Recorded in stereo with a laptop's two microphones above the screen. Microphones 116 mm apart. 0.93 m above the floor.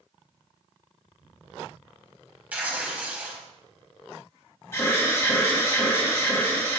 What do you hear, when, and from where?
1.1 s footsteps: 70° right (ahead or behind), 3 m
2.5 s tearing paper: 15° right (ahead or behind), 0.9 m
4.7 s an alarm: 20° left (ahead or behind), 2 m